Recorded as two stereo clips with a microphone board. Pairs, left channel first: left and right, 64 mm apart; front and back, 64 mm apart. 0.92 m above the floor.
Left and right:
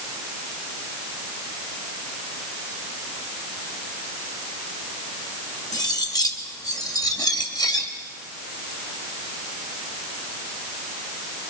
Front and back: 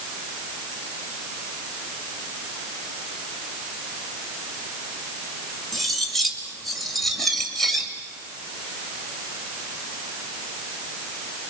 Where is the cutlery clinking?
90° left, 2.5 m.